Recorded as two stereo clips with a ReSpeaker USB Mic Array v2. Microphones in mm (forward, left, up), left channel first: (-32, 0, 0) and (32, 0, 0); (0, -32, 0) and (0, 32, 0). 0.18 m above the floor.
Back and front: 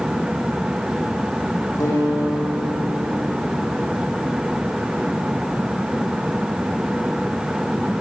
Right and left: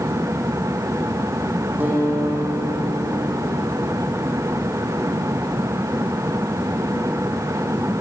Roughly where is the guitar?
Behind left.